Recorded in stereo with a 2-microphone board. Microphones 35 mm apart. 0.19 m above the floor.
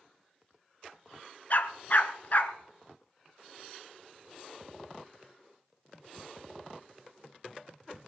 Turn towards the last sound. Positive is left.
turn(degrees=50)  # may be behind; listen again after turning